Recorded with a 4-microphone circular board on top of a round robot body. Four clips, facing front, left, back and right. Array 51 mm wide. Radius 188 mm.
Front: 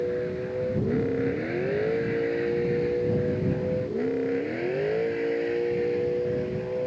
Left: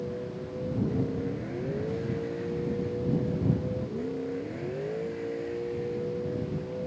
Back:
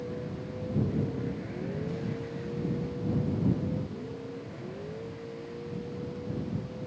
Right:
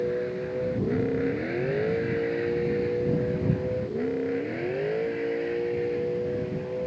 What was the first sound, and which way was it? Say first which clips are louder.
A vehicle: right 7 dB, front 9 dB; 50° right.